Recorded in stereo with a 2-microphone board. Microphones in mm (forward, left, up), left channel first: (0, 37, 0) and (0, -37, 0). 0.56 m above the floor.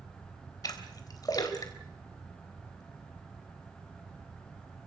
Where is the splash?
50° left (ahead or behind), 3 m.